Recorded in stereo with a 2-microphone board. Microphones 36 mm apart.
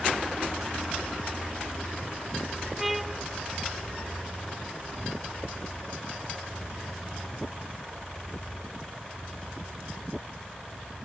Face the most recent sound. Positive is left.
turn(degrees=-5)  # may be behind; listen again after turning